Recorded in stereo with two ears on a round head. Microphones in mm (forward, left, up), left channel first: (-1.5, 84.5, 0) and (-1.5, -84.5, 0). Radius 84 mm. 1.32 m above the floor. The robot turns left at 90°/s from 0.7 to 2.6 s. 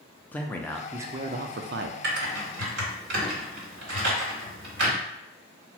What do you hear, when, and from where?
0.3 s a man speaking: 10° left, 0.5 m; by 1.9 s 100° right, 0.5 m
2.0 s typing on a keyboard: 60° right (ahead or behind), 1.6 m